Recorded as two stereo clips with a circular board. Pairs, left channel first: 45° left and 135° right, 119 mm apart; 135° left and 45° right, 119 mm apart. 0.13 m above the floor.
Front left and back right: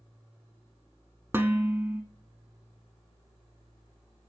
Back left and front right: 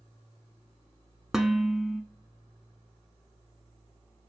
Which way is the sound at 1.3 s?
125° right.